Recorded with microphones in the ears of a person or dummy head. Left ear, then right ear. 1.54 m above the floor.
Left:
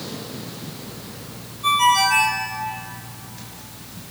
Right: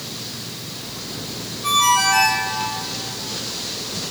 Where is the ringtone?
45° left (ahead or behind), 6 m.